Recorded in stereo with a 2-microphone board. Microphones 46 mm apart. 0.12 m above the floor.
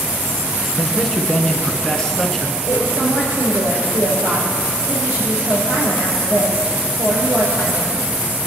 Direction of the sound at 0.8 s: 5° right (ahead or behind).